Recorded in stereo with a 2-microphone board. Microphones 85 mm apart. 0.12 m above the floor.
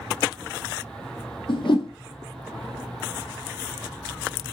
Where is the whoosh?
75° left (ahead or behind), 0.9 m.